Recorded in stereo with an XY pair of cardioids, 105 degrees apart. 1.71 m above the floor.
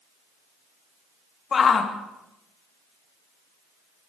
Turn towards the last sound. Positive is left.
turn(degrees=40)